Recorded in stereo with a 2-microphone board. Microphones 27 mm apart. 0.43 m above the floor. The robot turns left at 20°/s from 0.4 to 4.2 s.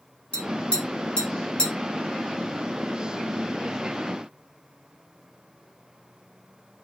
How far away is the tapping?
About 2.5 m.